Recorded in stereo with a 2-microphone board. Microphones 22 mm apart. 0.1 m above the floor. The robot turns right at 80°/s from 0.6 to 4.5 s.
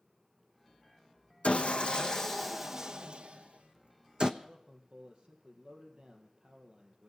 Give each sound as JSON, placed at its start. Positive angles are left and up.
{"t": 1.4, "sound": "sawing", "azimuth_deg": 95, "distance_m": 1.0}
{"t": 4.4, "sound": "a man speaking", "side_deg": -50, "distance_m": 2.5}